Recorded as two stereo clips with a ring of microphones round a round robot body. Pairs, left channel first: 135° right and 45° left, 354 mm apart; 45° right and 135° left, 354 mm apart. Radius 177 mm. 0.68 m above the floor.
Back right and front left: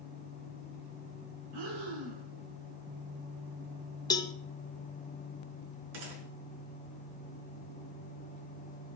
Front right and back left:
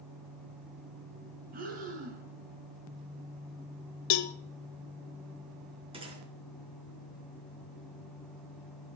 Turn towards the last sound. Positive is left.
turn(degrees=60)